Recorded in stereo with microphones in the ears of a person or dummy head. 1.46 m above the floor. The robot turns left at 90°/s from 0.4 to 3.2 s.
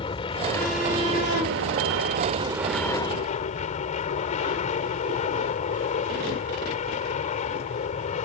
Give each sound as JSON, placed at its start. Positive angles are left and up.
{"t": 0.0, "sound": "an aircraft", "azimuth_deg": 30}